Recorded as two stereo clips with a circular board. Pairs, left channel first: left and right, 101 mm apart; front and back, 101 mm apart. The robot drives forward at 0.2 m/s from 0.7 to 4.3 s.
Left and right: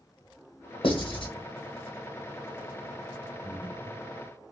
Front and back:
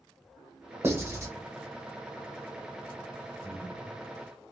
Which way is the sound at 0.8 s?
115° left.